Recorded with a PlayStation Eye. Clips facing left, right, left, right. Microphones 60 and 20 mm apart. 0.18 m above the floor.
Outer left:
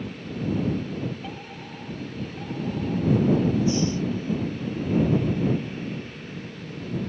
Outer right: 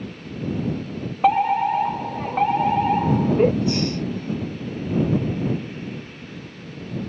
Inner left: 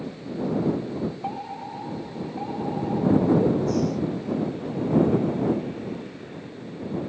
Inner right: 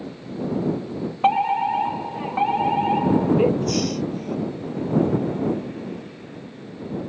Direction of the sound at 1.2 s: 75° right (ahead or behind).